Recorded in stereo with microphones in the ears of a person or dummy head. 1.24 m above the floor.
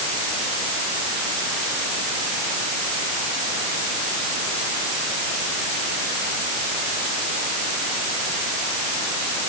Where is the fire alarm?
No fire alarm in this recording.